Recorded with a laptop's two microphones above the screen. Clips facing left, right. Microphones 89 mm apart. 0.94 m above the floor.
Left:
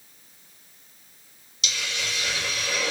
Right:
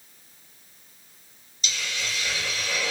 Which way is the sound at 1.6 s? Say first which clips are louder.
Left 1 dB; 80° left.